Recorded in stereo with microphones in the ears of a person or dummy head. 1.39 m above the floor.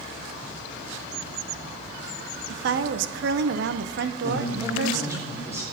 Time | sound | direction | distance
2.5 | a woman speaking | 60° right (ahead or behind) | 0.9 m
4.2 | a woman speaking | 10° right (ahead or behind) | 3.5 m